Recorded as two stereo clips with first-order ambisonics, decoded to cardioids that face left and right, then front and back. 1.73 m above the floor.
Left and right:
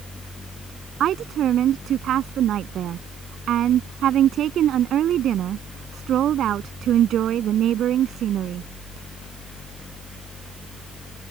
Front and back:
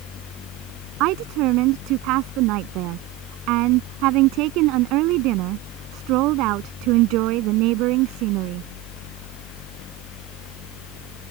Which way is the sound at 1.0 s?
150° right.